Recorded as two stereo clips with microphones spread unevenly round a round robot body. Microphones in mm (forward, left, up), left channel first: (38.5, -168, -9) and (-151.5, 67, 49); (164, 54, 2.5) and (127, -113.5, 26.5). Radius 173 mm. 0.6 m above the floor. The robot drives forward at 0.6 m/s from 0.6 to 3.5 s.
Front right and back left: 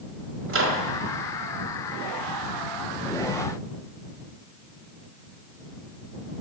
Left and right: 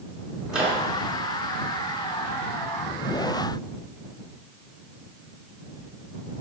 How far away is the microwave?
About 0.9 m.